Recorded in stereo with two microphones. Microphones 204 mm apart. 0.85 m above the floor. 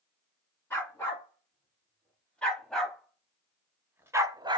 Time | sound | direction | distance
0.7 | a dog barking | 10° left (ahead or behind) | 2.5 m